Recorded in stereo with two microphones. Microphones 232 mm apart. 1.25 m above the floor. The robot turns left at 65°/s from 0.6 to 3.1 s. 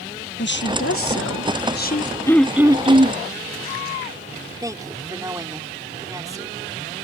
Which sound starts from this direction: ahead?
Throat clearing, at 2.3 s.